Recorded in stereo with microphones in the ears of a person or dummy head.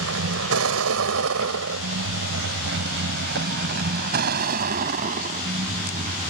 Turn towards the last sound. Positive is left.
turn(degrees=-40)  # may be behind; listen again after turning